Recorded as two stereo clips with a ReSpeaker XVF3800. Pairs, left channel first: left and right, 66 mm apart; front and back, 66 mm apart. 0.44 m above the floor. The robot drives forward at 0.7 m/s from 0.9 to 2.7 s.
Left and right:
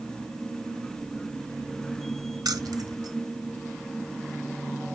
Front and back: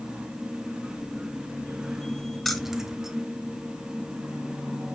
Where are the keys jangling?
90° right, 1.1 m; by 3.2 s 95° right, 1.2 m.